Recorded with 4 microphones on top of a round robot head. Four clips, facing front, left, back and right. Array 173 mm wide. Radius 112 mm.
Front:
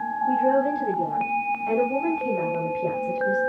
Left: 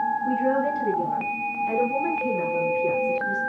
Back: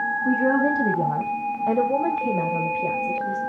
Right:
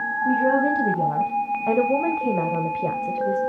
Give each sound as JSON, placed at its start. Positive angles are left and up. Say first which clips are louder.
{"t": 0.2, "sound": "a woman speaking", "louder": "right 7 dB, even", "azimuth_deg": -145, "distance_m": 3.5}